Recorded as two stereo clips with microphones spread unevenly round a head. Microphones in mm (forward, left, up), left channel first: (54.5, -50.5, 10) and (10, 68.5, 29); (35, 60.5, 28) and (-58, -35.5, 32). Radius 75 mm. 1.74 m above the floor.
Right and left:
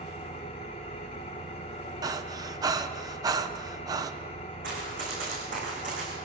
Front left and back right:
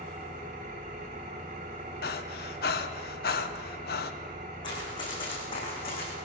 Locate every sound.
0.0 s an engine running: 120° right, 1.9 m
2.0 s breathing: 55° left, 1.1 m
4.6 s running footsteps: 105° left, 7.5 m; by 6.1 s 90° left, 6.5 m